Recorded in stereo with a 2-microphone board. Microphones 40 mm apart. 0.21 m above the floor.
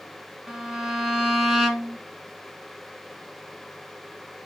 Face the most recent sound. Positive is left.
turn(degrees=-10)  # may be behind; listen again after turning